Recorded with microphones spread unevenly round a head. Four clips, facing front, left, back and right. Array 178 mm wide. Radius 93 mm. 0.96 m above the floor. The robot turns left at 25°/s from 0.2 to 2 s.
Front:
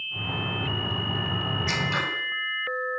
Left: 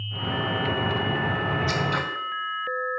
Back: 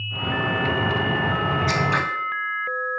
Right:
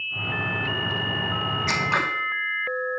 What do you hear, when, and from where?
1.7 s scissors: 100° right, 1.9 m; by 2.0 s 110° right, 1.9 m